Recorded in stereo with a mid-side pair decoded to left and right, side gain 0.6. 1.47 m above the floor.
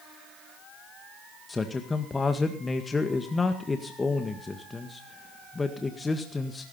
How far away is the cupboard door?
No cupboard door in this recording.